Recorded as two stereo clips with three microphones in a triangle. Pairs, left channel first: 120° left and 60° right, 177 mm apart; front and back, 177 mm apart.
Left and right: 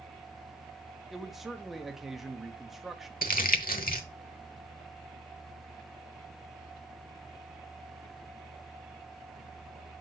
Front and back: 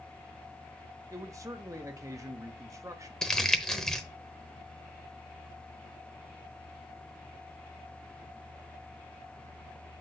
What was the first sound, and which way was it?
A man speaking, 145° right.